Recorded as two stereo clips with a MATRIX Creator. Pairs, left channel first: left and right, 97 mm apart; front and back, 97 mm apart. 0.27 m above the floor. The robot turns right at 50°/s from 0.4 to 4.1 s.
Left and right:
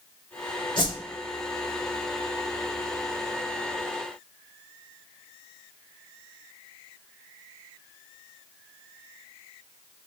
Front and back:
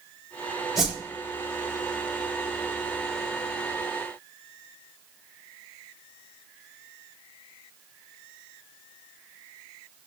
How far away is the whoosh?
About 0.6 m.